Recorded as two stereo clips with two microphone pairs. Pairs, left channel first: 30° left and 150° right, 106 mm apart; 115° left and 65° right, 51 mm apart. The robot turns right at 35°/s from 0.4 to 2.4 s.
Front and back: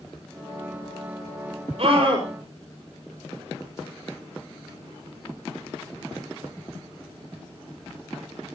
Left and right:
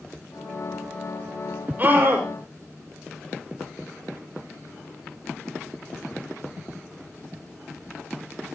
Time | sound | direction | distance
1.8 | a scream | 125° right | 6 m